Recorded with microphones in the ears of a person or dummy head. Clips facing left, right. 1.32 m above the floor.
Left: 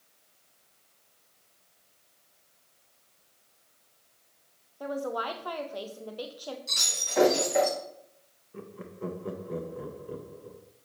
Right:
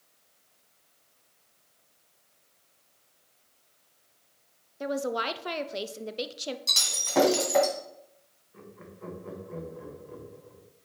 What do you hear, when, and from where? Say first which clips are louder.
4.8 s a woman speaking: right 2 dB; 30° right (ahead or behind), 0.5 m
6.7 s breaking glass: right 5 dB; 60° right (ahead or behind), 2.5 m
8.5 s laughter: left 6 dB; 45° left (ahead or behind), 1.1 m